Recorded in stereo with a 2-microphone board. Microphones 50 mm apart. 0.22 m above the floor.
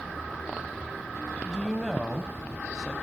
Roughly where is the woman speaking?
Centre.